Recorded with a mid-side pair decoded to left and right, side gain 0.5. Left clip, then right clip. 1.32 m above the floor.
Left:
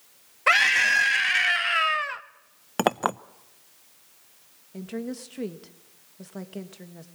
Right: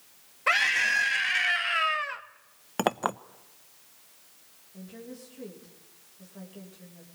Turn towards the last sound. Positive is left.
turn(degrees=70)